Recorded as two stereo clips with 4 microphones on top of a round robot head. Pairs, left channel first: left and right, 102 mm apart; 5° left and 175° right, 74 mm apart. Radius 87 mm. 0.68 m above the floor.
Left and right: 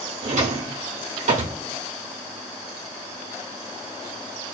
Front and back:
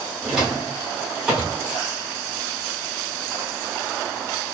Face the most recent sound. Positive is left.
turn(degrees=-90)